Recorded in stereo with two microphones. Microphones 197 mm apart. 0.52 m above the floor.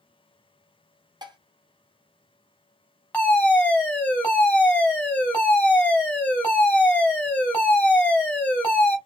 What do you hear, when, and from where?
1.2 s dishes clattering: 20° right (ahead or behind), 0.8 m
3.1 s a fire alarm: 5° left (ahead or behind), 1.9 m